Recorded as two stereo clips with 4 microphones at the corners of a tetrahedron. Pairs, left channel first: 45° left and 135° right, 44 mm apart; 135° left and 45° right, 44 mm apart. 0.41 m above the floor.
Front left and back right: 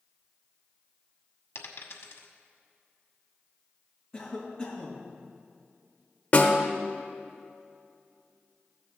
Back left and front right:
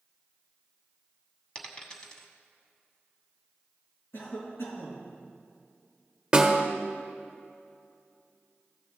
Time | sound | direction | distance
1.6 | a dropped coin | 65° left | 1.1 m
4.1 | a cough | 120° left | 3.5 m
6.3 | a snare drum | 25° left | 1.1 m